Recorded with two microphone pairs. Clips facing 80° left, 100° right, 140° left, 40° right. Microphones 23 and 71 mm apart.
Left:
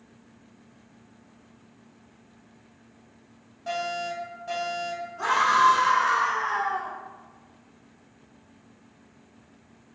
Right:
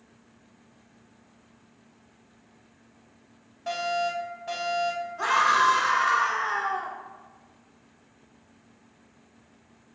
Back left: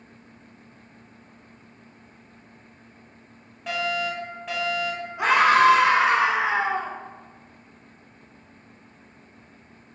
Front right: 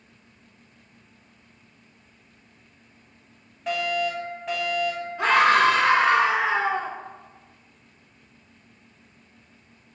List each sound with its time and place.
3.7 s a fire alarm: 135° right, 2.0 m
5.2 s a scream: 155° right, 1.3 m